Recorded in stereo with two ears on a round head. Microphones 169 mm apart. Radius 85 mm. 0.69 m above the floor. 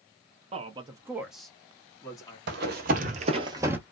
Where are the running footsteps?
60° right (ahead or behind), 1.2 m; by 3.8 s 10° right (ahead or behind), 0.8 m.